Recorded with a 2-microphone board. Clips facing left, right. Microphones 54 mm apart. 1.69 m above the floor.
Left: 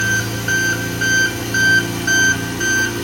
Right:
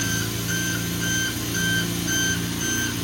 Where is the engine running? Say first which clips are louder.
Left 9 dB; 65° left (ahead or behind), 2.5 m.